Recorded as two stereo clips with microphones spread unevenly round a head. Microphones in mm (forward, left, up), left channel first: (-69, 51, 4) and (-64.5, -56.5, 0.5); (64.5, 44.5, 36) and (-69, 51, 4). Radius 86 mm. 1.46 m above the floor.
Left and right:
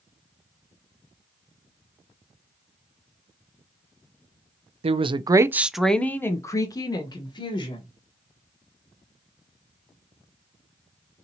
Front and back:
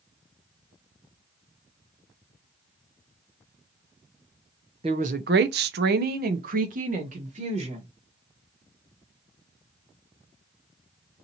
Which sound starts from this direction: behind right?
A woman speaking, at 4.8 s.